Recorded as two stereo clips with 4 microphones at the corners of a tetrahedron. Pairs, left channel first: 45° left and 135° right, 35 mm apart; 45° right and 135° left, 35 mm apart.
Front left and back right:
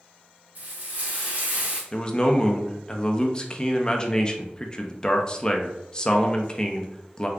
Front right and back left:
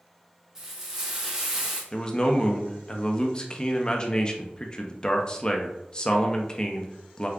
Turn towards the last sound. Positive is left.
turn(degrees=-5)